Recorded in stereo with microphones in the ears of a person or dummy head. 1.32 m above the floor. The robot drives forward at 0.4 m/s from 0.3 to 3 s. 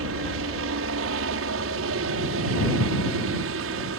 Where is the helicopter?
65° right (ahead or behind).